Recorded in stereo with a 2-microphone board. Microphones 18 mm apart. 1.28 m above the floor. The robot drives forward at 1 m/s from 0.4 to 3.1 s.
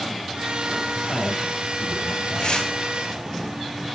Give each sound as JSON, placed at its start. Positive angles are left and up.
{"t": 0.9, "sound": "a man speaking", "side_deg": 75, "distance_m": 8.5}
{"t": 2.4, "sound": "tearing paper", "side_deg": 65, "distance_m": 7.5}